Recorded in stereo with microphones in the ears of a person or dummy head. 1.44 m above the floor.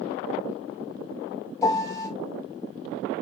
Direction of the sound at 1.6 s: 10° left (ahead or behind).